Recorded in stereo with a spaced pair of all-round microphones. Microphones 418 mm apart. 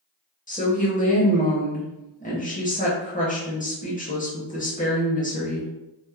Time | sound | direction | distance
0.5 | a woman speaking | 20° left (ahead or behind) | 0.7 m